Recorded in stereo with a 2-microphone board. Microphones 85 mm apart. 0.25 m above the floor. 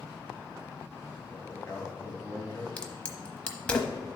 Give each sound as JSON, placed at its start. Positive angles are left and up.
{"t": 1.3, "sound": "a man speaking", "side_deg": 25, "distance_m": 1.6}
{"t": 2.8, "sound": "a crack", "side_deg": 15, "distance_m": 0.9}